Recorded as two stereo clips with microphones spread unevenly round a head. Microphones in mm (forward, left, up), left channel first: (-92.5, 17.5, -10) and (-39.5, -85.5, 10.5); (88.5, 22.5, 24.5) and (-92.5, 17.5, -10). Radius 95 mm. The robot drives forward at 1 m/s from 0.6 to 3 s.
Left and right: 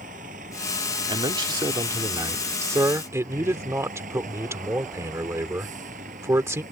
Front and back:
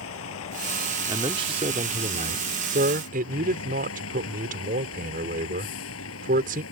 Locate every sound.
0.0 s a vehicle: 15° right
1.1 s a man speaking: 110° right; by 6.6 s 125° right